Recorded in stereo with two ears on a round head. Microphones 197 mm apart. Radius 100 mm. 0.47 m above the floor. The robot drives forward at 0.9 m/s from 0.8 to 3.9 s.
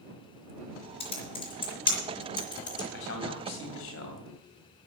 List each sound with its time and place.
1.0 s typing on a keyboard: 30° left (ahead or behind), 4.5 m; by 2.8 s 20° left (ahead or behind), 6 m
2.9 s a man speaking: 50° left (ahead or behind), 3.5 m; by 4.3 s 60° left (ahead or behind), 3 m